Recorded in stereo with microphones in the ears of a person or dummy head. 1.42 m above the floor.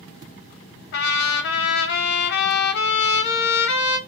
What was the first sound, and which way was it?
A trumpet, 60° left (ahead or behind).